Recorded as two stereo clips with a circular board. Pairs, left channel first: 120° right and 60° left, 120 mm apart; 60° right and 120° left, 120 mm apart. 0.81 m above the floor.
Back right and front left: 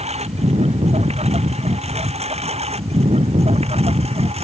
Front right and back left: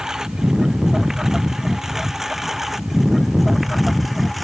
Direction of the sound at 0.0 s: 35° left.